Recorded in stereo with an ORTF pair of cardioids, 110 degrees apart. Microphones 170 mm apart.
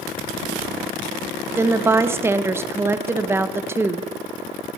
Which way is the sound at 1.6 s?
15° right.